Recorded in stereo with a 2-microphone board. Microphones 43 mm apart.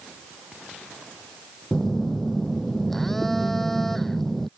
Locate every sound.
1.7 s a phone buzzing: 5° left (ahead or behind)